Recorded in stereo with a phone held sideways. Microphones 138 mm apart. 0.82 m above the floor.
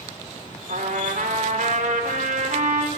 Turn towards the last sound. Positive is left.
turn(degrees=-70)  # may be behind; listen again after turning